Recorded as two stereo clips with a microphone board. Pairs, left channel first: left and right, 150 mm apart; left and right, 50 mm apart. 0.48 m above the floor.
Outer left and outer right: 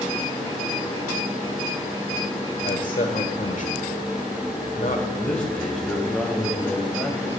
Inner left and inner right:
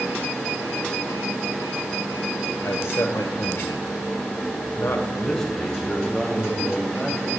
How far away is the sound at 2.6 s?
About 1.5 m.